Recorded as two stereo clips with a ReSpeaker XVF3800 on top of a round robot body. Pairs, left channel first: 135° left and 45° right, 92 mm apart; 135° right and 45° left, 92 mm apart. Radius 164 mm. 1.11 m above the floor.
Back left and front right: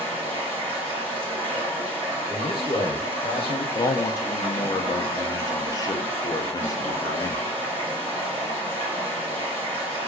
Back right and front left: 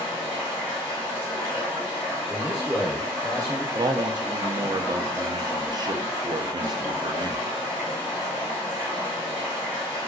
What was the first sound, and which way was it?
Running water, 20° right.